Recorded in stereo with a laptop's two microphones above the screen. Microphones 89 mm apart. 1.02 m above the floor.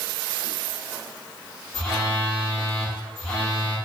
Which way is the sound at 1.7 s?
10° left (ahead or behind).